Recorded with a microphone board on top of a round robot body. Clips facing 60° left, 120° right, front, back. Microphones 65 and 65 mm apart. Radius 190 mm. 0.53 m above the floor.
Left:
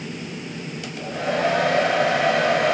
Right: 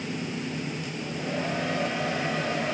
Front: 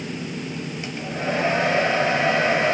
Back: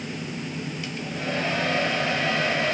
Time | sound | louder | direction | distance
0.8 | a hair dryer | left 6 dB, front 6 dB | 65° left | 0.7 m